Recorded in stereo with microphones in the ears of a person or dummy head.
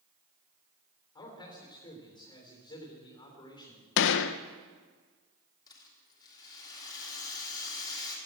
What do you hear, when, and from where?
1.1 s a man speaking: 25° left (ahead or behind), 3.5 m
4.0 s a gunshot: 75° left (ahead or behind), 0.5 m
5.7 s a rattle: 25° left (ahead or behind), 3 m